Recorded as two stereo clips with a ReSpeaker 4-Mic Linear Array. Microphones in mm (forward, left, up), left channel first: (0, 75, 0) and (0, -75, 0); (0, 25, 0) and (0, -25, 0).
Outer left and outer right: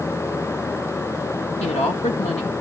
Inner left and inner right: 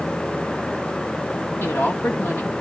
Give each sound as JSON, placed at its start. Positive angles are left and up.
{"t": 1.6, "sound": "a woman speaking", "side_deg": 45, "distance_m": 1.8}